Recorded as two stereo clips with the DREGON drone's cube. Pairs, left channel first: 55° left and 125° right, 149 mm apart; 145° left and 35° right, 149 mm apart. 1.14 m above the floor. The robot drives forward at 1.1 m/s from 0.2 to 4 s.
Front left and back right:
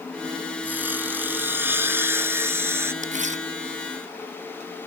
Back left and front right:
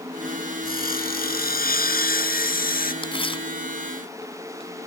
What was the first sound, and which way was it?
Sawing, 155° left.